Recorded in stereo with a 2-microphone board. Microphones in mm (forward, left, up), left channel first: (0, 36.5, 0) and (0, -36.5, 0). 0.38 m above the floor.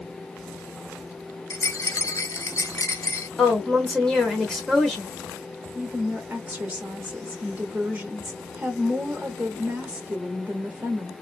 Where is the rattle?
45° left (ahead or behind), 0.6 m.